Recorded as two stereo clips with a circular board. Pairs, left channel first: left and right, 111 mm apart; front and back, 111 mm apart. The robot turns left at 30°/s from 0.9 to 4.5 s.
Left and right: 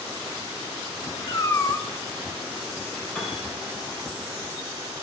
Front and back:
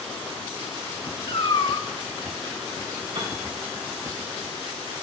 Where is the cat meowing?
40° left, 0.7 m; by 1.9 s 20° left, 0.7 m.